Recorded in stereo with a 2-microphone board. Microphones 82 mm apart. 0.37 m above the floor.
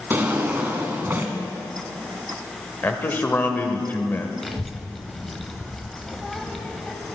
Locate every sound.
0.1 s a drawer: 25° right (ahead or behind), 1.1 m
2.8 s a man speaking: 25° left (ahead or behind), 1.2 m
4.4 s a child speaking: centre (ahead or behind), 1.0 m